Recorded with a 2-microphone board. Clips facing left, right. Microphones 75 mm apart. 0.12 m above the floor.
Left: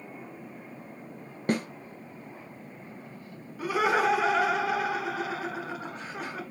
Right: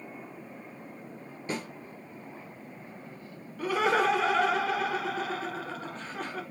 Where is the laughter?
15° left (ahead or behind), 1.2 m.